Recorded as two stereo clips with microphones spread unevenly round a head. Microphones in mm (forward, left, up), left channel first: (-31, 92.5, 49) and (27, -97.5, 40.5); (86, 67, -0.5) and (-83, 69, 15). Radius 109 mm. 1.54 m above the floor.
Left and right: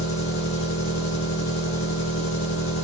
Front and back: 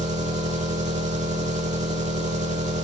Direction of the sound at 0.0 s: 135° left.